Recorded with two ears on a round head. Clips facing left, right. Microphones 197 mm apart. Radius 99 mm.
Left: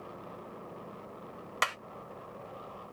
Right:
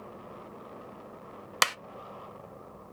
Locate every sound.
1.6 s a clap: 55° right (ahead or behind), 0.7 m